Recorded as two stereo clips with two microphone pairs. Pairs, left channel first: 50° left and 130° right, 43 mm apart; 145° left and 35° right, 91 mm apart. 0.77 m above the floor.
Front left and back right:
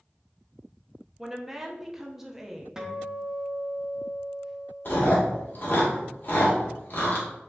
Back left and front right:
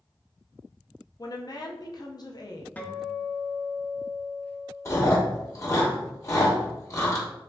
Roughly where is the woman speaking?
Behind left.